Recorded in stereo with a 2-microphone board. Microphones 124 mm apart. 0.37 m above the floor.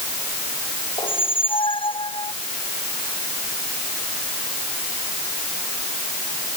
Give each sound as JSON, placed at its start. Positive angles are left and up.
{"t": 1.0, "sound": "a squeak", "side_deg": 45}